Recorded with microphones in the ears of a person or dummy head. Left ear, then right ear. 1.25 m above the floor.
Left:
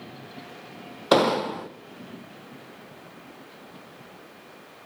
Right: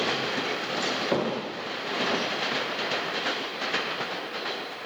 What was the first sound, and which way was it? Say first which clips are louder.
An explosion: left 7 dB; 70° left (ahead or behind).